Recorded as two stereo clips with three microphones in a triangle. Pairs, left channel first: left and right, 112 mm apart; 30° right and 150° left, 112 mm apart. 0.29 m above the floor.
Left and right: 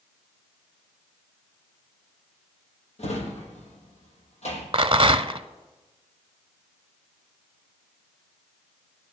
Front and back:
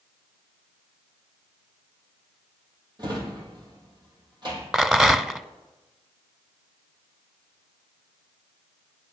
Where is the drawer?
100° left, 3.5 m.